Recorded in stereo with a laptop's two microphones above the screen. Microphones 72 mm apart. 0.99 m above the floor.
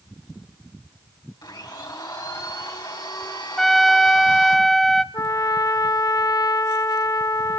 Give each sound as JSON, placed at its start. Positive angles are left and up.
{"t": 1.4, "sound": "a blender", "side_deg": 80, "distance_m": 4.5}
{"t": 3.6, "sound": "a trumpet", "side_deg": 5, "distance_m": 0.7}
{"t": 5.1, "sound": "a trumpet", "side_deg": 55, "distance_m": 0.5}